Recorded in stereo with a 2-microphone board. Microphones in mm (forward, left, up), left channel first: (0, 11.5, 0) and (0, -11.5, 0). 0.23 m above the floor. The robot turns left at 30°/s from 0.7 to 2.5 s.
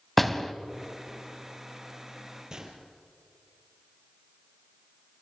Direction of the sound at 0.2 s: 5° left (ahead or behind).